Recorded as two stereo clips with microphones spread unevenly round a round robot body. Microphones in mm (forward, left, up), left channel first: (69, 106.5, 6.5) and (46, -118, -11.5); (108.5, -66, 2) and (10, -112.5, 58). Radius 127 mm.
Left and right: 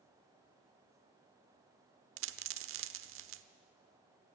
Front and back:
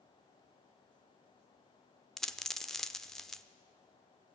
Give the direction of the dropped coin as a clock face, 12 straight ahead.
3 o'clock.